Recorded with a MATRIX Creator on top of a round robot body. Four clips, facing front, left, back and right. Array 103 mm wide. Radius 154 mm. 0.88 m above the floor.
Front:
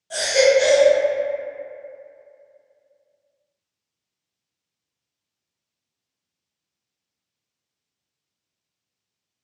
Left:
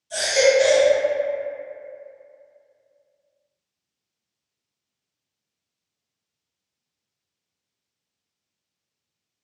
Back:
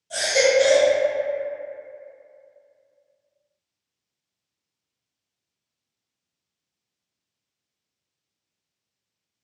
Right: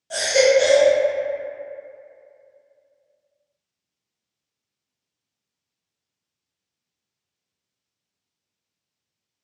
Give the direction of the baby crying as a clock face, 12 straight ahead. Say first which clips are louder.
Right 1 dB, front 3 dB; 2 o'clock.